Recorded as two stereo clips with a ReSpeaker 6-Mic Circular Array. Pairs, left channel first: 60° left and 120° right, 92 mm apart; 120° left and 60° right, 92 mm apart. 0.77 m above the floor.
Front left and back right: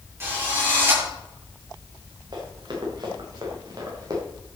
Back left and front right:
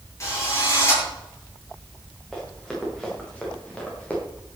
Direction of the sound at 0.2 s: 175° left.